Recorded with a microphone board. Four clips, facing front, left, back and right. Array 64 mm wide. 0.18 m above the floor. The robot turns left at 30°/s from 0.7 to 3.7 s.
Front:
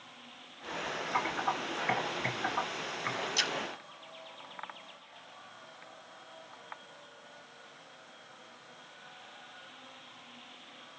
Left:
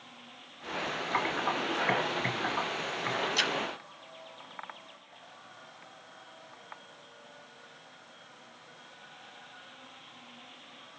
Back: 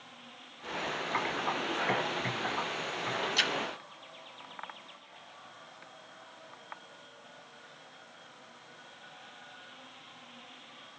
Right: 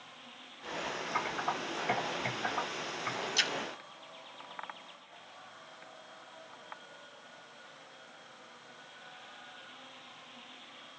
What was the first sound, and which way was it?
Typing on a keyboard, 105° left.